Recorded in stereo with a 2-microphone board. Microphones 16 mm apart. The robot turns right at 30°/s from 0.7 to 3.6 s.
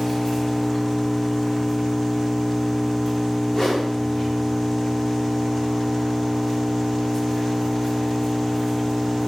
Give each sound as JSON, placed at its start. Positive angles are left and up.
{"t": 0.0, "sound": "an engine running", "azimuth_deg": 50, "distance_m": 1.1}
{"t": 3.5, "sound": "a whoosh", "side_deg": 55, "distance_m": 1.1}